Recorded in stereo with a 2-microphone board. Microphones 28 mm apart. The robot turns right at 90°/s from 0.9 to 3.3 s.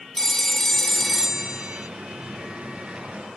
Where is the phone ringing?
165° left, 1.3 m; by 1.9 s 105° right, 1.3 m.